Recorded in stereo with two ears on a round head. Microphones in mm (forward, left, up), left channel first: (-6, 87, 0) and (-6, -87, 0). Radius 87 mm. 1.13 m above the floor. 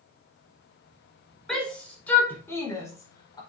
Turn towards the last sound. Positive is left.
turn(degrees=20)  # may be behind; listen again after turning